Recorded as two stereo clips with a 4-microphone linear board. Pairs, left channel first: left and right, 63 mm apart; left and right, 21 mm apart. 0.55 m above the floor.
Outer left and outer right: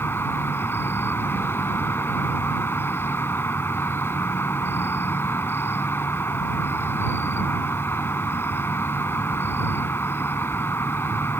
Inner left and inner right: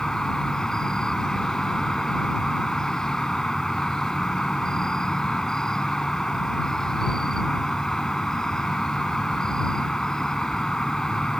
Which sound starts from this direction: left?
An insect, at 0.0 s.